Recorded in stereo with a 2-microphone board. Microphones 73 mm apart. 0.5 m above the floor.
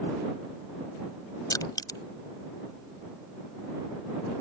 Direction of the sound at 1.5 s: 60° left (ahead or behind).